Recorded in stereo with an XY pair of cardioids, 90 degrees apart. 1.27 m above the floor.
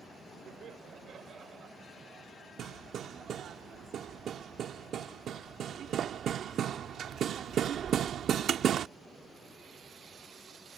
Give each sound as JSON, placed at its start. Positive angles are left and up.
{"t": 0.5, "sound": "laughter", "azimuth_deg": -65}
{"t": 2.6, "sound": "hammering", "azimuth_deg": -70}